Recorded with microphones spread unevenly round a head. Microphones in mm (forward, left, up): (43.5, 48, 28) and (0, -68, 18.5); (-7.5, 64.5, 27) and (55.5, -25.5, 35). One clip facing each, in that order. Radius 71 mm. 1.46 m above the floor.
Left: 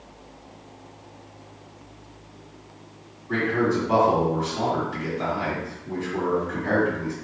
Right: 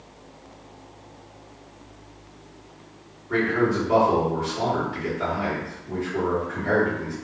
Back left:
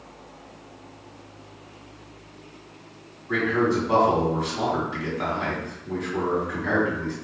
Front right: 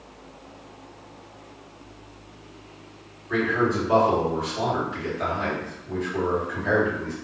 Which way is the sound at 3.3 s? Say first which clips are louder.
Right 1 dB, back left 1 dB; 90° left.